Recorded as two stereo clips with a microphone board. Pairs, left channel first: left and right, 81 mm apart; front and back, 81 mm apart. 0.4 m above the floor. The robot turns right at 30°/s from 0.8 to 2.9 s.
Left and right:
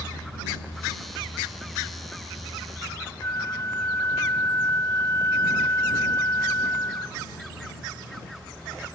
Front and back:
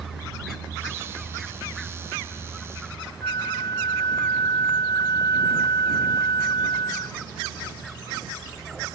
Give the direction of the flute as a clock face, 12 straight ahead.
11 o'clock.